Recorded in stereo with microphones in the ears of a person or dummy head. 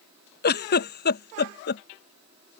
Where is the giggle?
50° left (ahead or behind).